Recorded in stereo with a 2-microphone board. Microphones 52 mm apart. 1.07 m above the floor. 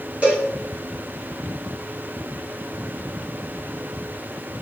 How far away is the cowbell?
About 3 m.